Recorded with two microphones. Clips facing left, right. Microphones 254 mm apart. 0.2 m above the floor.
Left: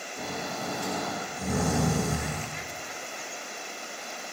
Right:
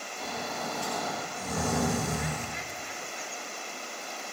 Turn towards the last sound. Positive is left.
turn(degrees=65)  # may be behind; listen again after turning